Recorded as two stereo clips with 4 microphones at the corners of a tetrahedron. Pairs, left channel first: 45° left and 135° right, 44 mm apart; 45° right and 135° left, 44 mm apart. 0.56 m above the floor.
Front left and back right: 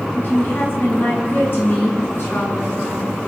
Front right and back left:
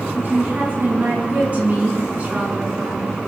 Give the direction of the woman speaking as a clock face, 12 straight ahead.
9 o'clock.